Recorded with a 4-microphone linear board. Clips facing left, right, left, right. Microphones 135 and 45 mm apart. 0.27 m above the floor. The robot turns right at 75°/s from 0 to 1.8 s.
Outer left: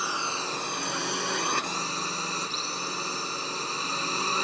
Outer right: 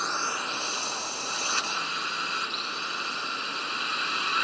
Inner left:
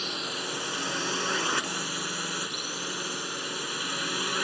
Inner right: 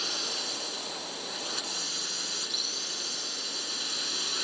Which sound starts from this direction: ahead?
A drone, at 0.0 s.